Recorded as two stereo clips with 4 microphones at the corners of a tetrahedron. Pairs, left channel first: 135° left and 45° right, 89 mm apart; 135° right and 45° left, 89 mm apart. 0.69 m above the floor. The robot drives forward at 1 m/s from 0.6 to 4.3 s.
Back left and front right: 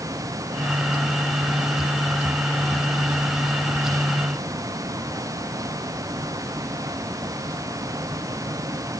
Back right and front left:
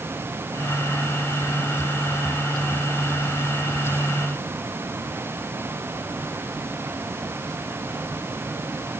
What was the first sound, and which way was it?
Only background noise.